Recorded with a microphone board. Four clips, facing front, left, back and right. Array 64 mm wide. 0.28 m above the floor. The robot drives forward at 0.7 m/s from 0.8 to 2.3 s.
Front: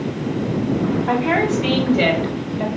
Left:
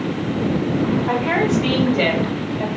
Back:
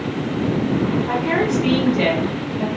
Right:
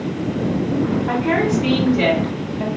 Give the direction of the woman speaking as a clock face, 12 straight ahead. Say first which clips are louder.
Even, front 1 dB; 11 o'clock.